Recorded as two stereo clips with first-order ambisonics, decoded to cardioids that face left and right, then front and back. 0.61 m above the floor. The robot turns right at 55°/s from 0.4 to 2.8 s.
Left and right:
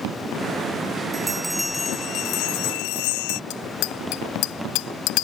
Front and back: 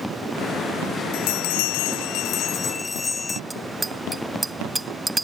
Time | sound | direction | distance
1.1 | a bell | 20° right | ?
3.5 | a bicycle bell | 100° left | ?